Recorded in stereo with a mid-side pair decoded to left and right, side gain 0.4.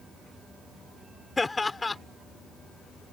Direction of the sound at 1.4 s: 25° left.